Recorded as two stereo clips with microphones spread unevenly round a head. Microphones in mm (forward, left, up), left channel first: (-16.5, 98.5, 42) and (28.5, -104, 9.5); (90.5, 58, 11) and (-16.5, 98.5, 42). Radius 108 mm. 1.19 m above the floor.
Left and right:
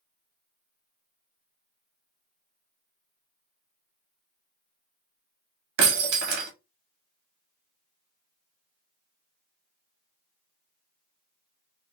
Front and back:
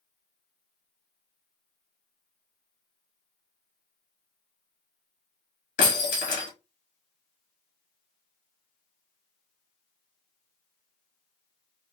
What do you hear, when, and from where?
5.8 s breaking glass: 55° right, 0.8 m